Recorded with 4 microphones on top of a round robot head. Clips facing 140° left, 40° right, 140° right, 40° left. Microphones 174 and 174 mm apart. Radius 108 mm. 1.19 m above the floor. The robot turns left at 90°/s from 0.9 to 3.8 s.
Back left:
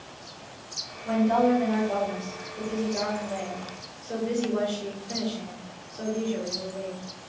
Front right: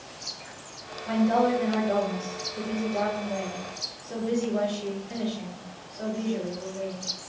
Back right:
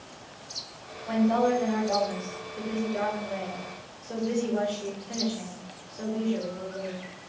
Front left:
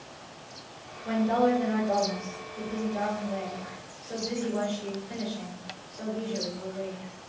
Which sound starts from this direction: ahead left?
A woman speaking, at 1.1 s.